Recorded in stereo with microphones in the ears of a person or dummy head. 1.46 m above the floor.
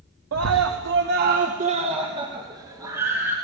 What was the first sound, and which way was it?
A scream, 75° right (ahead or behind).